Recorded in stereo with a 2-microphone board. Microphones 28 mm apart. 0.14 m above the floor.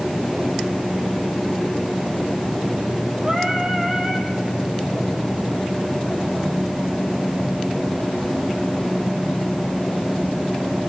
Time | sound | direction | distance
3.2 | singing | 25° right (ahead or behind) | 3 m